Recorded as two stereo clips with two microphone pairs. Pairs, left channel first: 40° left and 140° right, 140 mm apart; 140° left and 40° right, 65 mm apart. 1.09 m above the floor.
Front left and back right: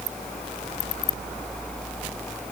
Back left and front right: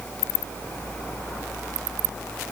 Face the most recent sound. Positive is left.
No sound to turn to.